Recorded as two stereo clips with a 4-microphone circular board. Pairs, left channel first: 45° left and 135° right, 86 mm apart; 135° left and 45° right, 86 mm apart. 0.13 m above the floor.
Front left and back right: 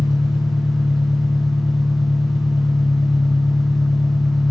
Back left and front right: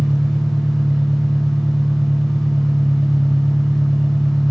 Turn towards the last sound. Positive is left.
turn(degrees=40)